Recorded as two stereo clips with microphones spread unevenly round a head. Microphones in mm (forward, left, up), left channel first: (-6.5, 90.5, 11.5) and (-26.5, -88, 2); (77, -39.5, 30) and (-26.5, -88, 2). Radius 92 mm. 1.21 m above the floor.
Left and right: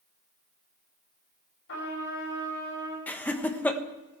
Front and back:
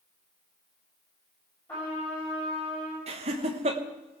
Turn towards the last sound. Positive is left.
turn(degrees=165)